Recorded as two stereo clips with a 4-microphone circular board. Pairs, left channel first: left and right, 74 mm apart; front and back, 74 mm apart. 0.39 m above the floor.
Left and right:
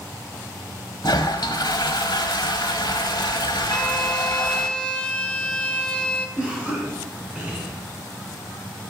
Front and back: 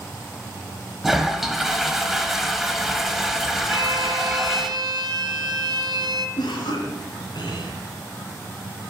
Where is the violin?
165° left, 0.9 m.